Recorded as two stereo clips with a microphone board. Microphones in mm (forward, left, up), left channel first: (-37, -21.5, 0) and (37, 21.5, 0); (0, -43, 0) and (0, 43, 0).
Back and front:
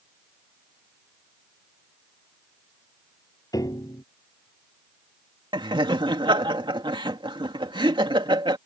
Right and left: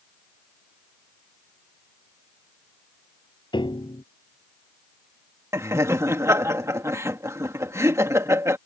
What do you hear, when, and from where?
3.5 s a piano: 105° right
5.5 s laughter: 35° left